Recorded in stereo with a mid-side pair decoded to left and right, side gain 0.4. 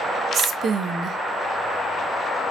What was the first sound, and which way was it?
A woman speaking, 65° right.